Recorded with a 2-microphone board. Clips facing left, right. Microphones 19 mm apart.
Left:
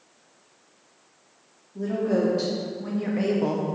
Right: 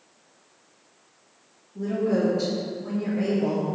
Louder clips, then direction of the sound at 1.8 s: Even; 55° left (ahead or behind).